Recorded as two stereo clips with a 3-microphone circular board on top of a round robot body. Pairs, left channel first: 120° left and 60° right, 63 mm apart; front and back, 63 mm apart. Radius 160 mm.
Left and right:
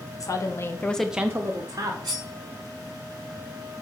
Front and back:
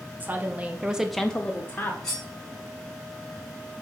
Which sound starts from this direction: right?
Cutlery clinking, at 2.0 s.